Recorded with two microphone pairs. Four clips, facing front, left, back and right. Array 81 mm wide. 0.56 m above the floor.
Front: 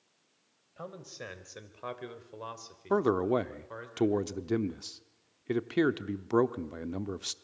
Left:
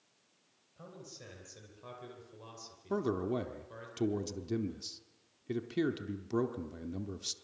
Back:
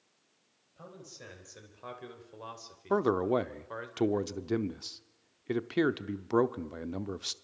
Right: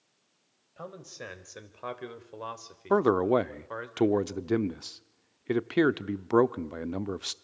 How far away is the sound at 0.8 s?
About 3.5 m.